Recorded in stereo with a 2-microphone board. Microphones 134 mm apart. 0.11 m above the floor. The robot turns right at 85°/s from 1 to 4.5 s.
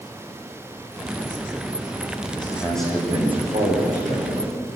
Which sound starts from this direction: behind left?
A man speaking, at 2.4 s.